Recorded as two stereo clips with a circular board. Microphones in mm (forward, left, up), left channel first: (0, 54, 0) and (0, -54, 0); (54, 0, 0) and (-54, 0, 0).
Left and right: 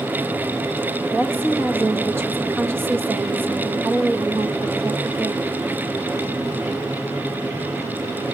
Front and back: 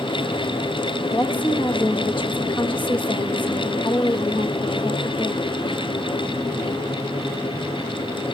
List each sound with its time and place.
1.1 s a woman speaking: 25° right, 1.3 m